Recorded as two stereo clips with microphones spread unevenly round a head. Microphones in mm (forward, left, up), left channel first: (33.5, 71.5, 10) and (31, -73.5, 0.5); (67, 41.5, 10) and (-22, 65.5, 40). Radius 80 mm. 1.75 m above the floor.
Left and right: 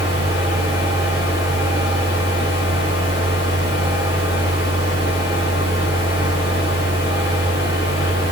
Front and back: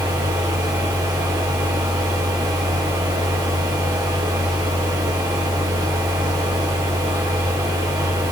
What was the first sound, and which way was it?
A fan, 120° left.